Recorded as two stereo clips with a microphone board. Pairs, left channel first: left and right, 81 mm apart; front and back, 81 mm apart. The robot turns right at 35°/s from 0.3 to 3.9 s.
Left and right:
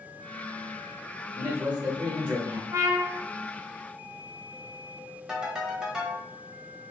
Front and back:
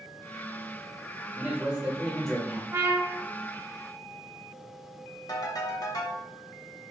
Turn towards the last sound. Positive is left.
turn(degrees=-10)